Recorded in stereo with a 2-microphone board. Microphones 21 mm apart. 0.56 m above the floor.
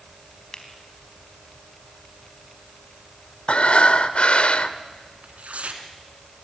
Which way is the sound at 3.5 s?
60° left (ahead or behind).